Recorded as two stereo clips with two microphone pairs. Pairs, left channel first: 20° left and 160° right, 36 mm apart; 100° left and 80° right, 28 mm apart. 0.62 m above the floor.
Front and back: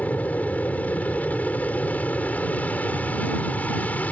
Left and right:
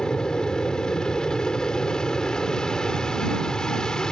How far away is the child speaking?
I don't hear a child speaking.